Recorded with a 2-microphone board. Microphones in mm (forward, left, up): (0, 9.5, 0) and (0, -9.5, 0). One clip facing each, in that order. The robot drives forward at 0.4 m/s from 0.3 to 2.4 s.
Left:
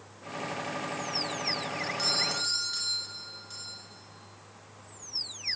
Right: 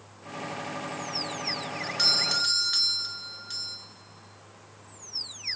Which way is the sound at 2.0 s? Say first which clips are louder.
Right 6 dB; 40° right (ahead or behind).